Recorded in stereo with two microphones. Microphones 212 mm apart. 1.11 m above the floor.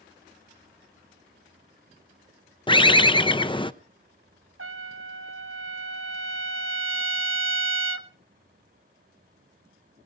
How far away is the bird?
About 0.5 m.